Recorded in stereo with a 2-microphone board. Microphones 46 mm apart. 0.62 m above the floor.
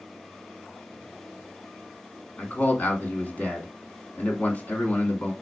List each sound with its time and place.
2.4 s a man speaking: 40° left (ahead or behind), 1.7 m